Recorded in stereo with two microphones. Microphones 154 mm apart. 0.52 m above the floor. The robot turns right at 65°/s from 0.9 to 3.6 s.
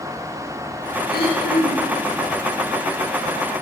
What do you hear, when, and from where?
1.1 s throat clearing: 70° left, 4.5 m; by 2.0 s 130° left, 4.5 m